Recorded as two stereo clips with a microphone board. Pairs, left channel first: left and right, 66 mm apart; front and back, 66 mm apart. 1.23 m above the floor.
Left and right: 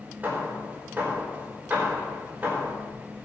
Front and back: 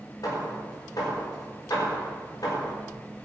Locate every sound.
0.2 s hammering: 25° right, 4.5 m